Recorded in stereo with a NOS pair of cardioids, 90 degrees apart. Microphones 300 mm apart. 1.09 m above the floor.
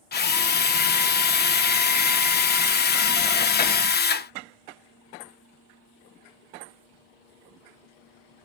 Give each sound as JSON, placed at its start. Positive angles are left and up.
{"t": 0.1, "sound": "a drill", "azimuth_deg": 35, "distance_m": 0.7}